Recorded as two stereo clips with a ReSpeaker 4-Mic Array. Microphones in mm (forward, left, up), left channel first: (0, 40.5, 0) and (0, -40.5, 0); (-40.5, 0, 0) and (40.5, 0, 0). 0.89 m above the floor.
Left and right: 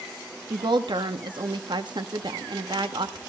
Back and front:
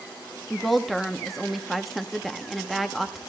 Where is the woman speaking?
90° right, 1.1 m.